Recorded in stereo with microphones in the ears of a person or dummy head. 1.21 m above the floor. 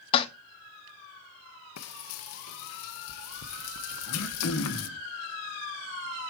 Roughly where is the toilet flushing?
Left.